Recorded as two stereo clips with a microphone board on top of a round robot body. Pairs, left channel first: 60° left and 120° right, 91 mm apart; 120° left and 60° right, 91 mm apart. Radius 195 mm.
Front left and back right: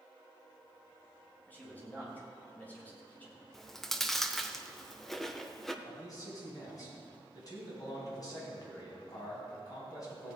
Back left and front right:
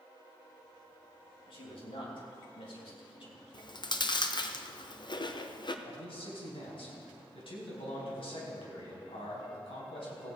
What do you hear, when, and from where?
1.5 s a man speaking: 130° left, 3.5 m
3.5 s chewing: 145° left, 0.9 m
5.8 s a man speaking: 105° left, 4 m